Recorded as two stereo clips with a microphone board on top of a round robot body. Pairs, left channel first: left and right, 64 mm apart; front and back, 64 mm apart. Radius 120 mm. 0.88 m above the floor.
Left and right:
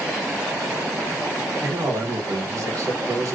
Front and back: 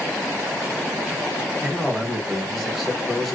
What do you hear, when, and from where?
1.6 s a man speaking: 90° right, 1.1 m